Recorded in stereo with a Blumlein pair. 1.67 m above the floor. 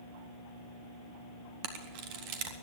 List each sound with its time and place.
1.6 s a camera shutter: 45° right, 1.8 m